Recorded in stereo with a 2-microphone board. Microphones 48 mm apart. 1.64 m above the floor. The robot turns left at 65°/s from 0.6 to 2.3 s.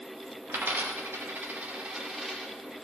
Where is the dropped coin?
50° right (ahead or behind), 1.5 m; by 2.5 s centre (ahead or behind), 1.5 m.